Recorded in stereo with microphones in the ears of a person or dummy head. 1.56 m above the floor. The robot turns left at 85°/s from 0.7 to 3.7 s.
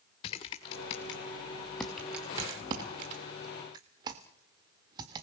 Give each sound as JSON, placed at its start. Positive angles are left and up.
{"t": 0.2, "sound": "typing on a keyboard", "side_deg": 20, "distance_m": 1.3}